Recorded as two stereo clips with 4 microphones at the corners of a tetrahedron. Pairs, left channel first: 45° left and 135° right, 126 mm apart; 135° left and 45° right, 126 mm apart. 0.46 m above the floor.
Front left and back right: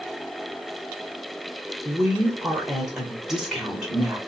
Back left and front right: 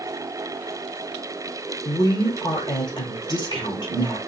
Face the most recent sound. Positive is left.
turn(degrees=145)